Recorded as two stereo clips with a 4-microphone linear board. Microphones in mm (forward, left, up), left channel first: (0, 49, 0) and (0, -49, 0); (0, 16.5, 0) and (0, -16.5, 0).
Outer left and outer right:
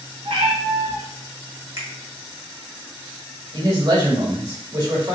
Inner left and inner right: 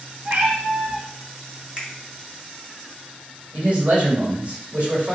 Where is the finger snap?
30° right (ahead or behind), 1.2 m.